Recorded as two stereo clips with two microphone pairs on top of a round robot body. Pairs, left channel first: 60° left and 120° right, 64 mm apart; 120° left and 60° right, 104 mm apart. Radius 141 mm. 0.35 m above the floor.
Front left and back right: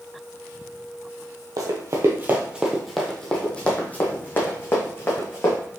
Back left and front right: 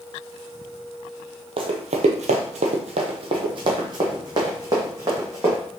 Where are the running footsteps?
95° right, 0.7 m; by 5.6 s 5° left, 2.0 m.